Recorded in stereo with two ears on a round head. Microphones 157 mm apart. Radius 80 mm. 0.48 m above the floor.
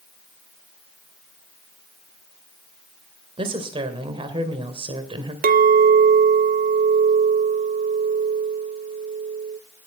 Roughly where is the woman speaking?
Right.